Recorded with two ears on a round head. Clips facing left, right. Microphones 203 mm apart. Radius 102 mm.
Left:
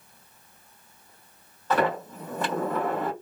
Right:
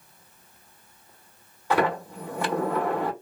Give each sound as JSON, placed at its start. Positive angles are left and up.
{"t": 1.7, "sound": "a sliding door", "side_deg": -10, "distance_m": 1.9}